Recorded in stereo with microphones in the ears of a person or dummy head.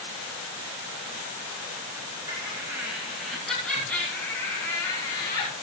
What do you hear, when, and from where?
2.3 s laughter: 20° right (ahead or behind), 2 m; by 5.5 s 25° left (ahead or behind), 3.5 m